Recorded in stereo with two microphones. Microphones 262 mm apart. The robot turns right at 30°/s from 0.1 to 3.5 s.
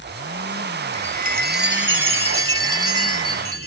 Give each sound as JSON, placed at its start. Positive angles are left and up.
{"t": 0.9, "sound": "a chime", "azimuth_deg": -150, "distance_m": 1.1}